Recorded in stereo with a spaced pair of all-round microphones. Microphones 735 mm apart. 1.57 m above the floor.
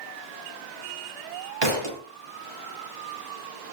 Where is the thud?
35° right (ahead or behind), 1.1 m.